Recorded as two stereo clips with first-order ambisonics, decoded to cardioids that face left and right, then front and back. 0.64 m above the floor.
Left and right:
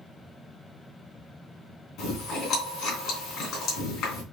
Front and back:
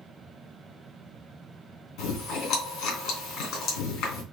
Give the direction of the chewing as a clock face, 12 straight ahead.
11 o'clock.